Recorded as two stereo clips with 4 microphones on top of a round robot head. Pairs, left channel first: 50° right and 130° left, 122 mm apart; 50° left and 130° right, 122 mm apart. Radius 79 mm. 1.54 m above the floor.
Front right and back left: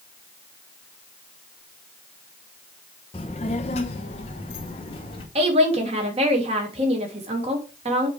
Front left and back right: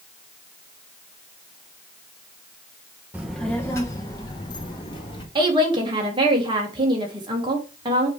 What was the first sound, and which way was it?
A child speaking, 65° right.